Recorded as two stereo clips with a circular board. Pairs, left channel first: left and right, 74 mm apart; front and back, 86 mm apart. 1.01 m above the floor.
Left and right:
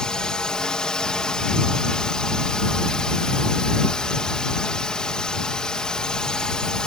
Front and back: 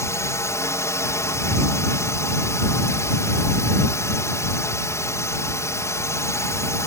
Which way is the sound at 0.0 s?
20° left.